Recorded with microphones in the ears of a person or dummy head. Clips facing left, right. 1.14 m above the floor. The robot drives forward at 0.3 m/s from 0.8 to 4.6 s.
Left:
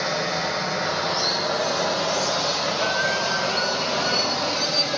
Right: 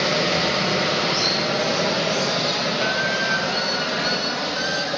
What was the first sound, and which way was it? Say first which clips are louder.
Running water: right 4 dB; 40° right (ahead or behind).